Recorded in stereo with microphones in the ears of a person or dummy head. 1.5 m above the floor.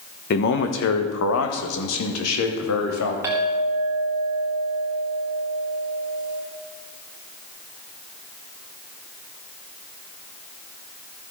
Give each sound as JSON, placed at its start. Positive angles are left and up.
{"t": 0.3, "sound": "a man speaking", "side_deg": 50, "distance_m": 1.0}
{"t": 3.2, "sound": "a clink", "side_deg": -15, "distance_m": 1.8}